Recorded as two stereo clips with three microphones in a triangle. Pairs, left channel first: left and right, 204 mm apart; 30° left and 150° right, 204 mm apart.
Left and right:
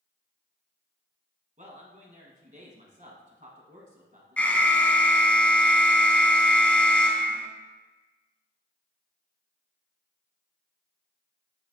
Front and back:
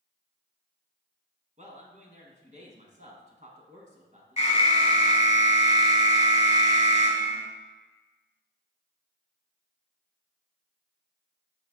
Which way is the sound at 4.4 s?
15° left.